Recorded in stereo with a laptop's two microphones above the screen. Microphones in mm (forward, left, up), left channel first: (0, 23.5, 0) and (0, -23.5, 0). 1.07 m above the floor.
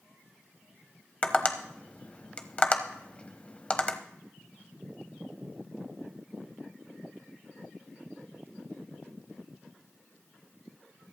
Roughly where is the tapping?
Left.